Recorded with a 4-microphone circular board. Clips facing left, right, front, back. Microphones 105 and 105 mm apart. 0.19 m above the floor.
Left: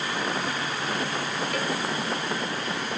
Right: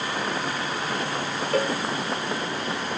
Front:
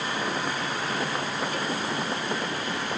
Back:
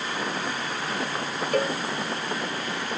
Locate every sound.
1.5 s a cowbell: 145° right